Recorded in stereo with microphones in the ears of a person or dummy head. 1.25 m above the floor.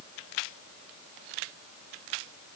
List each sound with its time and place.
Only background noise.